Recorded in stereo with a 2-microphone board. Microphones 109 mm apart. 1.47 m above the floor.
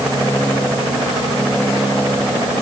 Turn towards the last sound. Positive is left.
No sound to turn to.